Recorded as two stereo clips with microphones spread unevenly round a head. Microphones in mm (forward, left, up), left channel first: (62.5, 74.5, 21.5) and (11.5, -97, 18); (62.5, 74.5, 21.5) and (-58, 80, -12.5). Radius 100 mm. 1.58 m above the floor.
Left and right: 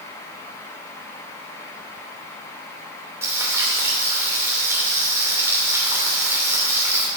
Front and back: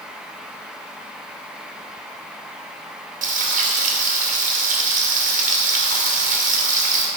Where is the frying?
175° left, 2.5 m.